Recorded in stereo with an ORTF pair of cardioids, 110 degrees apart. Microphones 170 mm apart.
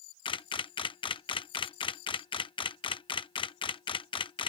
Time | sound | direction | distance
0.2 | a camera shutter | 30° left | ?